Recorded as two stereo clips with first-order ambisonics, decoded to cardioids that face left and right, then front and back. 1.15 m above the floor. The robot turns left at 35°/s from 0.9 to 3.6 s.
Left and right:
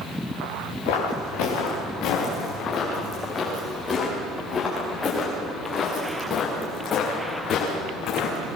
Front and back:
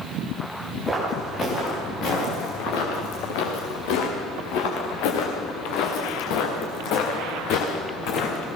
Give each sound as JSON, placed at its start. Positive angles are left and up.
{"t": 0.9, "sound": "footsteps", "azimuth_deg": 90, "distance_m": 6.5}